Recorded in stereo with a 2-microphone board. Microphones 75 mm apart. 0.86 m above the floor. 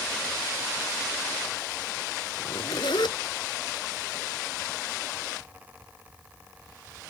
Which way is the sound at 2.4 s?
80° left.